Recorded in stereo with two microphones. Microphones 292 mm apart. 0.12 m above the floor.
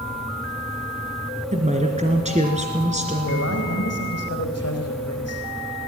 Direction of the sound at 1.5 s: 25° right (ahead or behind).